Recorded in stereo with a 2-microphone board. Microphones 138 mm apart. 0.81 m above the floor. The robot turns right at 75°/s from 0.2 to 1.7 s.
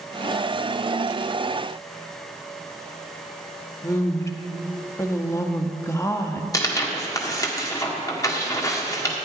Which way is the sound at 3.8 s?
20° left (ahead or behind).